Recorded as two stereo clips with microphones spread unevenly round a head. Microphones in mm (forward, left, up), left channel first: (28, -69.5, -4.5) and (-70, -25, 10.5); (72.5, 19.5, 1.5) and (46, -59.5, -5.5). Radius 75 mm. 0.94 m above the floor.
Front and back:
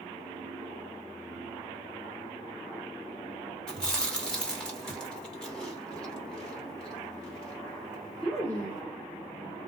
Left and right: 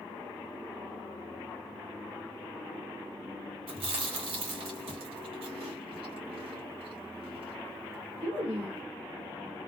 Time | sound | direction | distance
3.7 | chewing | 110° right | 1.1 m